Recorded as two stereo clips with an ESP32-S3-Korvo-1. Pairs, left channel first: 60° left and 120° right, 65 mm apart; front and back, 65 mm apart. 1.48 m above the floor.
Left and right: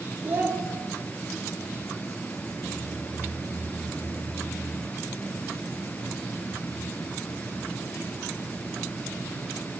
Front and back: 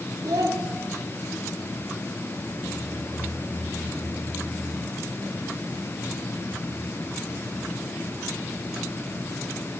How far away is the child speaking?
About 2 m.